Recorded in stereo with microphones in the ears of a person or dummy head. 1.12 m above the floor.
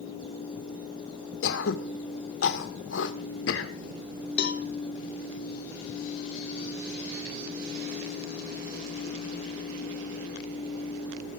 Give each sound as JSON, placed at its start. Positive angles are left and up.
{"t": 1.4, "sound": "throat clearing", "side_deg": 80, "distance_m": 1.8}
{"t": 4.4, "sound": "a cowbell", "side_deg": 60, "distance_m": 1.8}